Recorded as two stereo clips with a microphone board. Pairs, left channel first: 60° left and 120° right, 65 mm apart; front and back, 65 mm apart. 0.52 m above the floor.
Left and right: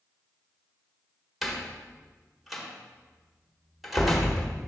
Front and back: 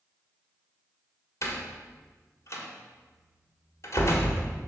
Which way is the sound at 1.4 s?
30° right.